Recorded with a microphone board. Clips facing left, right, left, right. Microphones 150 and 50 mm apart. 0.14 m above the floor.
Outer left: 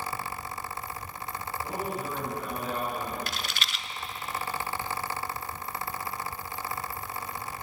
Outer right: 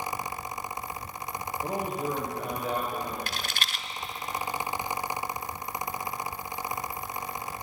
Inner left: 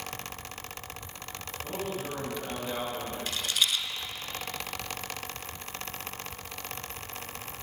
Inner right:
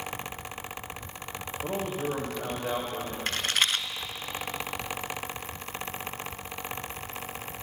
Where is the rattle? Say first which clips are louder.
Outer right 1 dB, inner right 3 dB; 45° right (ahead or behind), 0.6 m.